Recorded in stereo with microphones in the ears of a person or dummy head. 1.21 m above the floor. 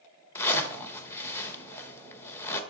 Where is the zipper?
15° left (ahead or behind), 0.9 m.